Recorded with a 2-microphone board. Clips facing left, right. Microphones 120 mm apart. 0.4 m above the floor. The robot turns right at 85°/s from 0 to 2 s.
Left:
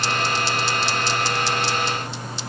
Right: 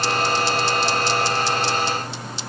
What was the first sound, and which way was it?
Only background noise.